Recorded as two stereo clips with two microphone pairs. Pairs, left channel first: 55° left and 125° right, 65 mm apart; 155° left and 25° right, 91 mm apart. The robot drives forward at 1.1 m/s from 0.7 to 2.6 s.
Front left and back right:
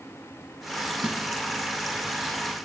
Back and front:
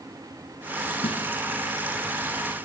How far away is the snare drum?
About 0.7 m.